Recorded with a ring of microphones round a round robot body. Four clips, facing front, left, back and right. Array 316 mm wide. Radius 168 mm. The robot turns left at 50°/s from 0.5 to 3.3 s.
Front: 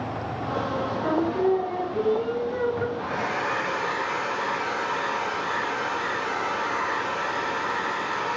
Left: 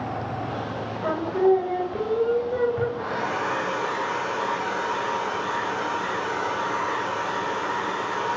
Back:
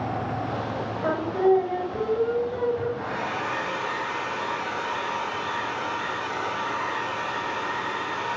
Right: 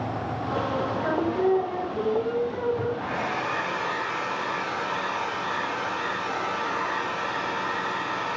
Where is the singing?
160° left, 1.7 m; by 2.9 s 65° left, 1.7 m.